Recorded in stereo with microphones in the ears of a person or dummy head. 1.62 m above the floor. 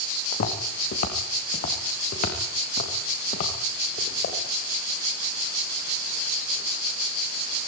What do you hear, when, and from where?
0.3 s footsteps: 55° left (ahead or behind), 6.5 m; by 4.4 s 50° left (ahead or behind), 11 m